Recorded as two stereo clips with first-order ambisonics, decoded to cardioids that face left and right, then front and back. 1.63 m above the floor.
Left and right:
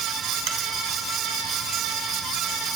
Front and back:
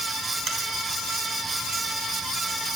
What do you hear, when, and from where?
0.5 s a finger snap: 115° right, 4 m